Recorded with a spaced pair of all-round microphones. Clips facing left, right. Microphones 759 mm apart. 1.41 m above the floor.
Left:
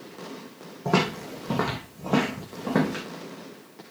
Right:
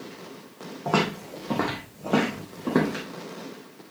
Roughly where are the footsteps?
Left.